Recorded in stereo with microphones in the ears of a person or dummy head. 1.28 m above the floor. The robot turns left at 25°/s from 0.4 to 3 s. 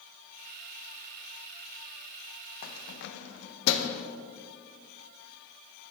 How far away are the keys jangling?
About 0.6 m.